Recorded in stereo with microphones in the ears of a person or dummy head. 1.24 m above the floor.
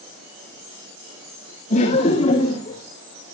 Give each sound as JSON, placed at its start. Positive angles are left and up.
{"t": 1.7, "sound": "laughter", "side_deg": 40, "distance_m": 3.0}